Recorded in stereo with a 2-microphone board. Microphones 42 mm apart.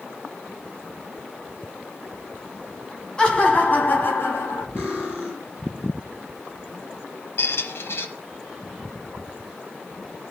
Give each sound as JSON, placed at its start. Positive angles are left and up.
{"t": 3.2, "sound": "laughter", "side_deg": 20, "distance_m": 2.5}
{"t": 4.8, "sound": "cutlery clinking", "side_deg": 45, "distance_m": 4.5}
{"t": 7.4, "sound": "a squeak", "side_deg": 70, "distance_m": 1.1}